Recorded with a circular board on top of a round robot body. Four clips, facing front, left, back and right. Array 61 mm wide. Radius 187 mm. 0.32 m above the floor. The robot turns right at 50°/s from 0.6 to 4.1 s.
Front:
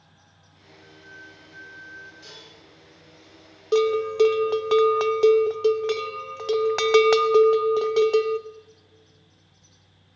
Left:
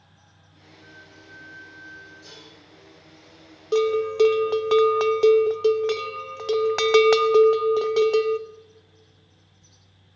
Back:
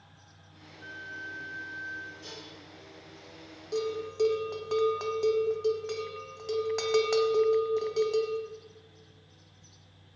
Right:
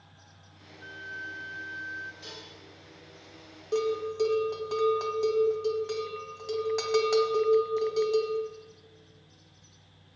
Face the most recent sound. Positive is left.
turn(degrees=50)